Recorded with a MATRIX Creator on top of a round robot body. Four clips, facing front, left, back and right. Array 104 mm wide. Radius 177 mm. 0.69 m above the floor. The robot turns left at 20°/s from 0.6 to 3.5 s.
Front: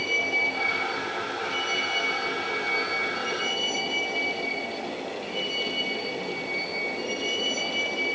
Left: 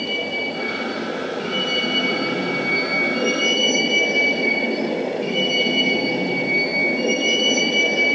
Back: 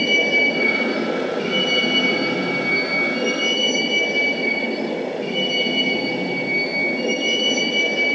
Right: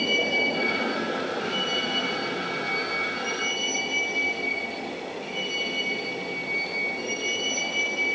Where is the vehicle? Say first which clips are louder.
Even, back 9 dB; 175° right; by 8.2 s 125° left.